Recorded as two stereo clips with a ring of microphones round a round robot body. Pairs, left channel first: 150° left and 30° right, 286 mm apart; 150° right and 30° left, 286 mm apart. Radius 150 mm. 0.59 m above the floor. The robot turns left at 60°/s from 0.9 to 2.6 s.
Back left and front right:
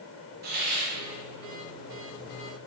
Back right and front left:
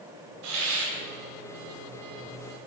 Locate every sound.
0.4 s a hiss: 25° left, 1.9 m